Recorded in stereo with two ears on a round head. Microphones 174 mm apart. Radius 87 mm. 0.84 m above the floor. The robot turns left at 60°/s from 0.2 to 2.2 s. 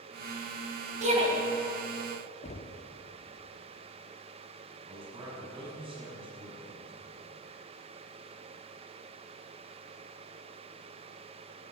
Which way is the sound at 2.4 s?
35° left (ahead or behind).